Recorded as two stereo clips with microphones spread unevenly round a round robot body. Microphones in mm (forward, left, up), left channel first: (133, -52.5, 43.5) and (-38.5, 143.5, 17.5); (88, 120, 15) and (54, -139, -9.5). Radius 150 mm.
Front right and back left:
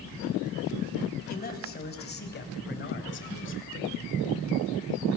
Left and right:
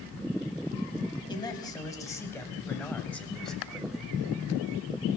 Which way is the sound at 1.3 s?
10° left.